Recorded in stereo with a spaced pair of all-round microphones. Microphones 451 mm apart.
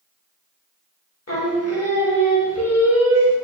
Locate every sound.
1.3 s singing: 35° left (ahead or behind), 1.0 m